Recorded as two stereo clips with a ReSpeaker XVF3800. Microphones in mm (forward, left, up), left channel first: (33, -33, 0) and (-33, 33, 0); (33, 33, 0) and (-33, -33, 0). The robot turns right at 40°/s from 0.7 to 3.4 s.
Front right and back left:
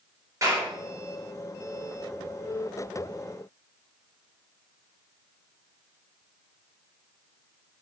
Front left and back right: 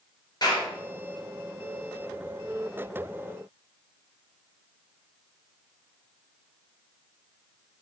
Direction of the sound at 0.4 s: 80° left.